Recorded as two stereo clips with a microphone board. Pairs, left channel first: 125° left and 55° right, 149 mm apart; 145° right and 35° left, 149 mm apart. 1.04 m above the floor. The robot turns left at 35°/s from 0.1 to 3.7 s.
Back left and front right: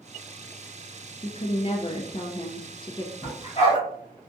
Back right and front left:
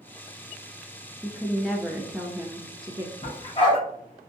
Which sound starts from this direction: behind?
A dog barking, at 3.2 s.